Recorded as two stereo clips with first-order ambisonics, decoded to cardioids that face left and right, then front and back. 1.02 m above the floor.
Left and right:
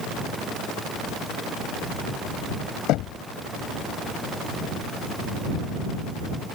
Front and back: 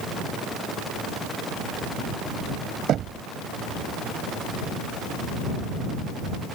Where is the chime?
I don't hear a chime.